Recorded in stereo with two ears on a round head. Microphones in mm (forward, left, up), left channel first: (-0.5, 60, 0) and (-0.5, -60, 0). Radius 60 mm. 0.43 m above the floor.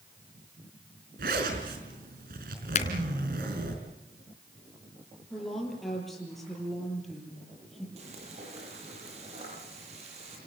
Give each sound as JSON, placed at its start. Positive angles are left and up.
{"t": 1.2, "sound": "a zipper", "side_deg": -80, "distance_m": 5.0}
{"t": 2.8, "sound": "a finger snap", "side_deg": 55, "distance_m": 3.5}
{"t": 5.3, "sound": "a woman speaking", "side_deg": 0, "distance_m": 8.5}
{"t": 8.0, "sound": "frying", "side_deg": -50, "distance_m": 9.5}